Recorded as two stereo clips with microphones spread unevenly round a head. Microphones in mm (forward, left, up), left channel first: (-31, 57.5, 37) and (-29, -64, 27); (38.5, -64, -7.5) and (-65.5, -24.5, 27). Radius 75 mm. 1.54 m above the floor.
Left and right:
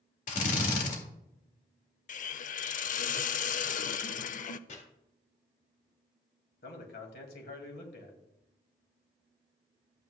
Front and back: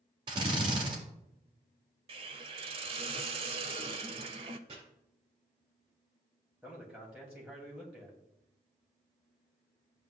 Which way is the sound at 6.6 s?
75° left.